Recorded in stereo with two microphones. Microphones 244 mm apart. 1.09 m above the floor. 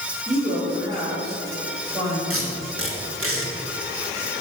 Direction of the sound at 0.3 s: 25° right (ahead or behind).